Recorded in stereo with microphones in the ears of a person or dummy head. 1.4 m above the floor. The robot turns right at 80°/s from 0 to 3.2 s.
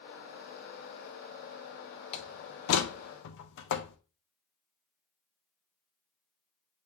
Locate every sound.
2.1 s a door slam: 30° left (ahead or behind), 0.8 m; by 4.0 s 65° left (ahead or behind), 0.8 m